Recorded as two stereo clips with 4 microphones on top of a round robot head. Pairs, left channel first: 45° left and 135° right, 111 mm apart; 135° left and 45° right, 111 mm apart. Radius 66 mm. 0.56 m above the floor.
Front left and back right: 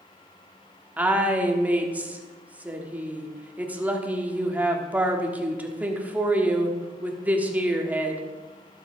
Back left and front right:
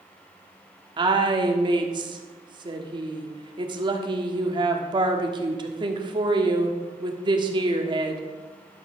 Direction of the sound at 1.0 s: 65° right.